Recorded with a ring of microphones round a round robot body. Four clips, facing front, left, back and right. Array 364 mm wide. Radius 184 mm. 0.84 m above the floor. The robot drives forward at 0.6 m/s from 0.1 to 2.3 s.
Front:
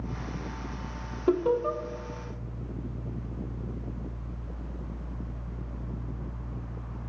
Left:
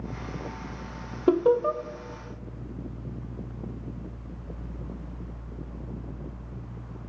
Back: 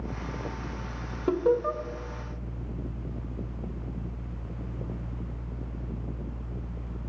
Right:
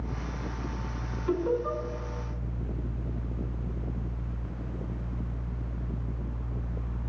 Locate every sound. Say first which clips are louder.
1.3 s laughter: left 7 dB, even; 90° left, 1.0 m; by 1.8 s 110° left, 1.0 m